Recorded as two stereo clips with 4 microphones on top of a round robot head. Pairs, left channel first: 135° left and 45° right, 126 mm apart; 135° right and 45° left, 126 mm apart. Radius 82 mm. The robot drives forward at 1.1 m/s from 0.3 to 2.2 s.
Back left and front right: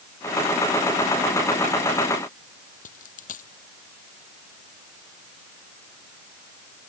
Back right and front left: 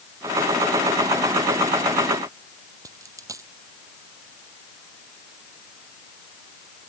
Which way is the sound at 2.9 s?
115° left.